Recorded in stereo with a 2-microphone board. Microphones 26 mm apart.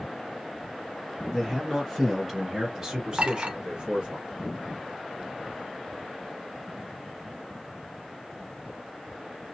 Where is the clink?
45° right (ahead or behind), 1.1 m.